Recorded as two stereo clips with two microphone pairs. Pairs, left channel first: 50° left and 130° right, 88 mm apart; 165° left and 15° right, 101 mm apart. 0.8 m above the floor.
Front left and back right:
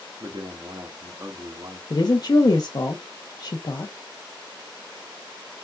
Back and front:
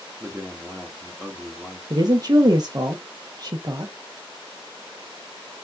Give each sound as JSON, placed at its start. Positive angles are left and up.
{"t": 0.2, "sound": "a man speaking", "azimuth_deg": -95, "distance_m": 1.0}
{"t": 1.9, "sound": "a woman speaking", "azimuth_deg": 20, "distance_m": 0.6}